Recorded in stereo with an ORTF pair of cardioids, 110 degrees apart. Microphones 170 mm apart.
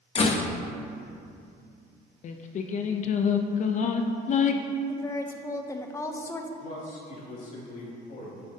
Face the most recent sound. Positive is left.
turn(degrees=50)